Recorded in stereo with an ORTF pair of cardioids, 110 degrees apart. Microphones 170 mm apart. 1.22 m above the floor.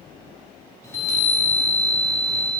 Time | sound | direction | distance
0.8 | a chime | 15° left | 3.5 m